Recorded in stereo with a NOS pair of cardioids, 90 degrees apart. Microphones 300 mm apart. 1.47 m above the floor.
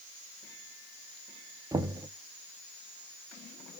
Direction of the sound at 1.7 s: 10° right.